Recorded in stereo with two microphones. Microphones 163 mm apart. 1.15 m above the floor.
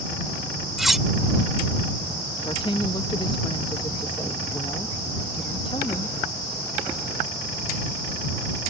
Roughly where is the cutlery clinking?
Centre.